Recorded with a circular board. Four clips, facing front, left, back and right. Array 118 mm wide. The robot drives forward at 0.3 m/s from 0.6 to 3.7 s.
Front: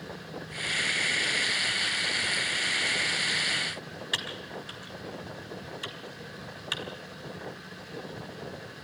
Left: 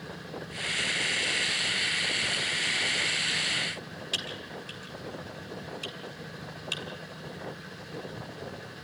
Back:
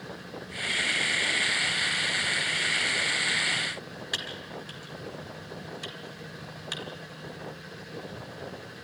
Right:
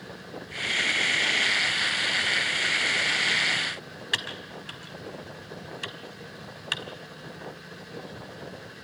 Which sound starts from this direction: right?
Typing on a keyboard, at 4.1 s.